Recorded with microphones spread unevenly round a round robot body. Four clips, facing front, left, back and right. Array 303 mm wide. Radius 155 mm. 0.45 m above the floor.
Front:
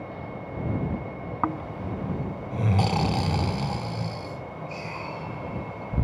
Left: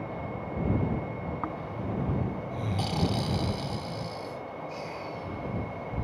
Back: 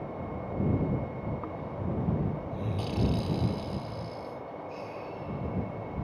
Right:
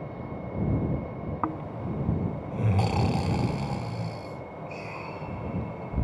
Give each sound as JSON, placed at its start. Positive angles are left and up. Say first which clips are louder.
{"t": 1.4, "sound": "snoring", "louder": "right 2 dB, front 6 dB", "azimuth_deg": 0}